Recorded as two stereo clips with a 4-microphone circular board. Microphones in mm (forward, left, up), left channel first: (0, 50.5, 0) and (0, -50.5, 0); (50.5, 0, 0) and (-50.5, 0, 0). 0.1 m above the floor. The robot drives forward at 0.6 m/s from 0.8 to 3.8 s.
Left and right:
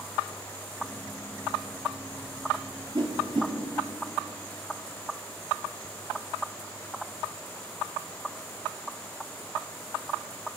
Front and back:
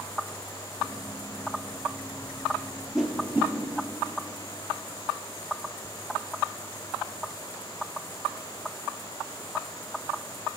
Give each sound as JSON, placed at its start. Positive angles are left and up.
{"t": 3.0, "sound": "a whoosh", "azimuth_deg": -95, "distance_m": 1.3}